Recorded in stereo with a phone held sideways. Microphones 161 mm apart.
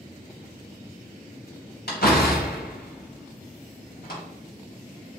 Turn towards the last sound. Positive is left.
turn(degrees=80)